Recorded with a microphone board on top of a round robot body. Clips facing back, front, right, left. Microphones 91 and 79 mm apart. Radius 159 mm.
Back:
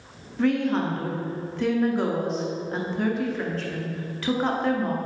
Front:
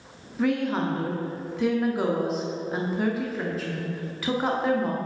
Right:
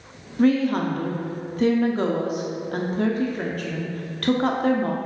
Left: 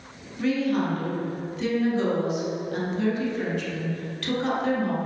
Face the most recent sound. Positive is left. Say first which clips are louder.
# back 2 dB, right 5 dB
turn(degrees=-85)